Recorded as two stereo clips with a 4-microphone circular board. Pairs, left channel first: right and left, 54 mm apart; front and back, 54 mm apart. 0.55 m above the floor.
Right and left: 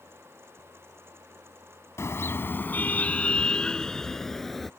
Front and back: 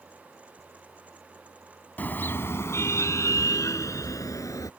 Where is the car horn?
55° right; by 4.7 s straight ahead.